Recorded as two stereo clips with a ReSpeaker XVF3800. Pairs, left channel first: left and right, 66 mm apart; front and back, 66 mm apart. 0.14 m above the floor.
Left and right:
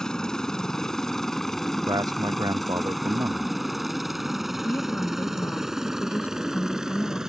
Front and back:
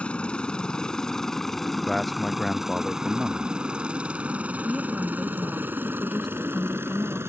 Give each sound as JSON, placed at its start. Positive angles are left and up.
{"t": 0.0, "sound": "a helicopter", "azimuth_deg": 30}
{"t": 1.9, "sound": "a man speaking", "azimuth_deg": -85}
{"t": 4.7, "sound": "a woman speaking", "azimuth_deg": 85}